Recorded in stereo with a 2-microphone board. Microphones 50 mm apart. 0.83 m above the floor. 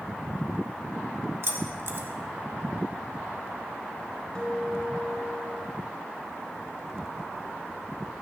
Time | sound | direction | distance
1.4 | keys jangling | 55° right (ahead or behind) | 1.4 m
4.3 | a guitar | 20° left (ahead or behind) | 4 m